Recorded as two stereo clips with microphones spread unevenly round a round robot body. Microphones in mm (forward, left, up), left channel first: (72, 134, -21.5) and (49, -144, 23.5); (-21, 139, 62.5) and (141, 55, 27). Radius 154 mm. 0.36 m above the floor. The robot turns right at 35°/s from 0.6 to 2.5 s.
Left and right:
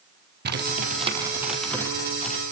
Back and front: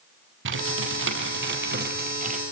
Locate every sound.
0.5 s typing on a keyboard: 40° right, 4.5 m; by 2.4 s 25° left, 4.5 m